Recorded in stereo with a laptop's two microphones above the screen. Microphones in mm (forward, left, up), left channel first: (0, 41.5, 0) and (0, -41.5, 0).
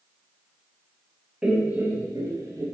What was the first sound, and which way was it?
Laughter, 10° right (ahead or behind).